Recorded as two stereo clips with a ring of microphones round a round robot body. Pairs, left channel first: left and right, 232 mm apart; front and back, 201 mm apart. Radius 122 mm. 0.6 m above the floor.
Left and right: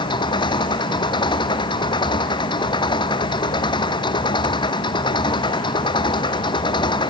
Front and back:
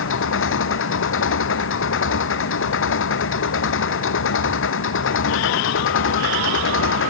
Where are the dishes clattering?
I don't hear dishes clattering.